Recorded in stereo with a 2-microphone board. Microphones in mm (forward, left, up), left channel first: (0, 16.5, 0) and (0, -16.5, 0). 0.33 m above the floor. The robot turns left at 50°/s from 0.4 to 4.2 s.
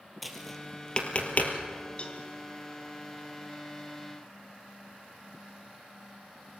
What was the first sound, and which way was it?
Tapping, centre (ahead or behind).